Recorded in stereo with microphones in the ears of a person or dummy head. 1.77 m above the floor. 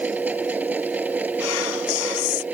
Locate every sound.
0.0 s a machine running: 5° right (ahead or behind)
1.4 s whispering: 85° left